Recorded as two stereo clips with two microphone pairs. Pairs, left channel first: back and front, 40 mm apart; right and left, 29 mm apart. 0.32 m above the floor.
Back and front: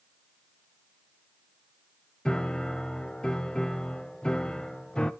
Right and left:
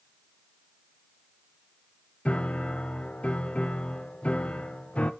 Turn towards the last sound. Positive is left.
turn(degrees=-120)